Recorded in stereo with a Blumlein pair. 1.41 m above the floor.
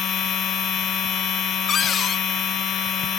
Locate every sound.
0.0 s a machine running: 30° left
1.7 s a cupboard door: 25° left